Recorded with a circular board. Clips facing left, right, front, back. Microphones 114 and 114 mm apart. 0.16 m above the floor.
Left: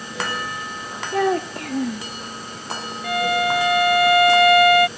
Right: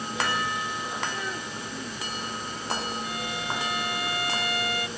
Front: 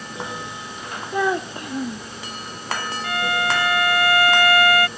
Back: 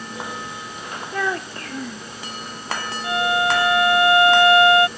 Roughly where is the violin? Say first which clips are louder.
Left 12 dB, back 4 dB; left.